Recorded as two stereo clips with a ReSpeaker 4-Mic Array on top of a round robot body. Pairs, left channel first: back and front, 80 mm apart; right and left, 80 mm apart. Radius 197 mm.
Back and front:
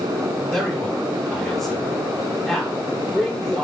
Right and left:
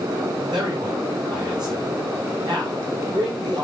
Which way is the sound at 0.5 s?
95° left.